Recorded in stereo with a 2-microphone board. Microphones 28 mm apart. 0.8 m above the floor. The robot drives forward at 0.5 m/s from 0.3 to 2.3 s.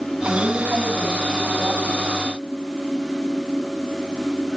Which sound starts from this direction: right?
A woman speaking, at 0.2 s.